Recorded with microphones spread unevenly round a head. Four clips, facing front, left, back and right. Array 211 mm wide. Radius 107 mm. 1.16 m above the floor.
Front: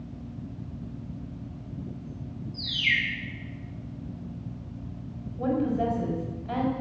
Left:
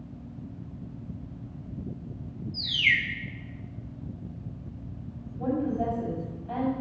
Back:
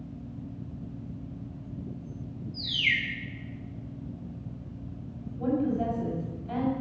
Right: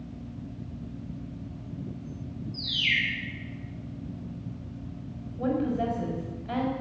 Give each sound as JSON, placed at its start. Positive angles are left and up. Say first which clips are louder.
{"t": 2.5, "sound": "a bird", "louder": "left 4 dB, front 2 dB", "azimuth_deg": 145, "distance_m": 1.2}
{"t": 5.4, "sound": "a woman speaking", "louder": "right 1 dB, front 1 dB", "azimuth_deg": -55, "distance_m": 5.5}